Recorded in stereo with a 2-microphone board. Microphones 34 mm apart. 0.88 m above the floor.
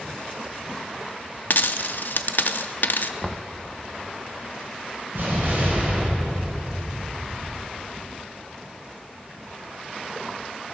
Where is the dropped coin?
65° left (ahead or behind), 0.5 m.